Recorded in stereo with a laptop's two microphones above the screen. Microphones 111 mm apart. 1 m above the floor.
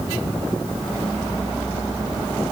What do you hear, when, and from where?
Only background noise.